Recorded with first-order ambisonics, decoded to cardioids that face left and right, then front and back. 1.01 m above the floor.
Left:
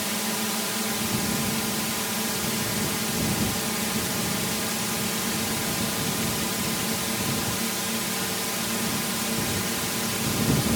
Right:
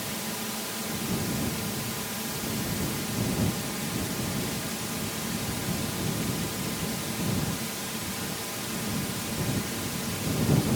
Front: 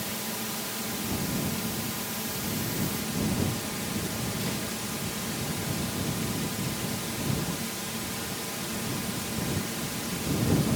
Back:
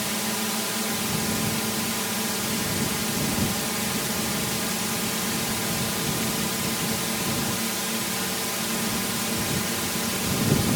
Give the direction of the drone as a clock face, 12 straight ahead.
7 o'clock.